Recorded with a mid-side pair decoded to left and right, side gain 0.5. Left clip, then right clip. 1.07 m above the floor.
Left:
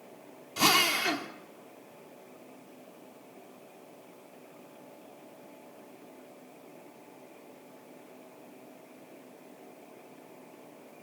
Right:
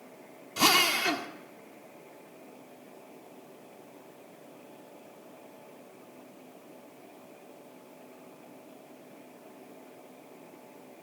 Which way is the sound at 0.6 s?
5° right.